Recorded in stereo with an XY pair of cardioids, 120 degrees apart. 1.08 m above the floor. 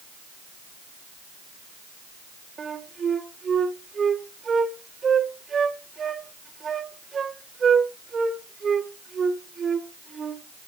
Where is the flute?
35° right, 1.8 m.